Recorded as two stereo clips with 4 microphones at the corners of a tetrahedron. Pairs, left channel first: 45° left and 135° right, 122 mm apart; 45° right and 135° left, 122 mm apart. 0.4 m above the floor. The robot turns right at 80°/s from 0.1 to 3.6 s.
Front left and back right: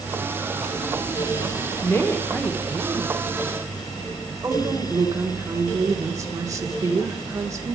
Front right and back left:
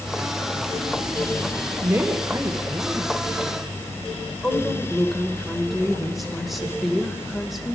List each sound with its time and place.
1.8 s a woman speaking: 80° left, 1.2 m; by 7.8 s 135° right, 1.2 m